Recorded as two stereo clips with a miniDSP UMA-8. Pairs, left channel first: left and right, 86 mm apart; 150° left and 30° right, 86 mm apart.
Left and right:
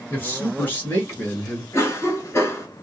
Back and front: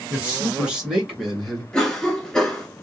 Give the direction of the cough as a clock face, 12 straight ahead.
10 o'clock.